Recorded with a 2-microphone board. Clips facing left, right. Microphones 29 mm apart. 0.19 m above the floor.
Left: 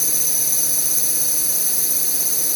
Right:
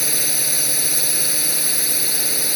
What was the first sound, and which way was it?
A drone, 45° right (ahead or behind).